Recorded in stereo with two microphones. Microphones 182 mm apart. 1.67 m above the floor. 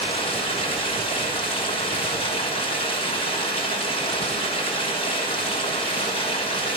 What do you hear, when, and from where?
0.0 s running water: 30° left (ahead or behind), 6 m